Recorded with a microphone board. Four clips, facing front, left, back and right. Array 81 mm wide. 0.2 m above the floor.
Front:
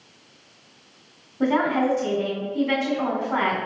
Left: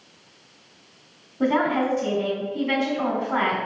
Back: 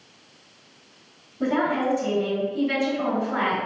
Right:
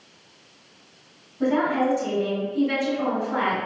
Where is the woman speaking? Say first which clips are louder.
Even, front 2 dB; 45° left, 1.8 m.